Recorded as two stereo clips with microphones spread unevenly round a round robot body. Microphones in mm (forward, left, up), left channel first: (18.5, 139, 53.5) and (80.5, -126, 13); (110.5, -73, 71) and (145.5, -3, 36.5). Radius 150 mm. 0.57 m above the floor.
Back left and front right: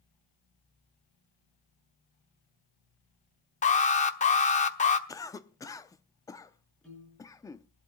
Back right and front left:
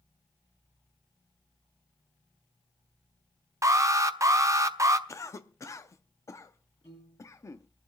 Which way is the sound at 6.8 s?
170° right.